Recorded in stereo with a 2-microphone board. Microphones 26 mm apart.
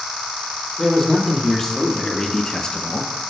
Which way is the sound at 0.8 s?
15° left (ahead or behind).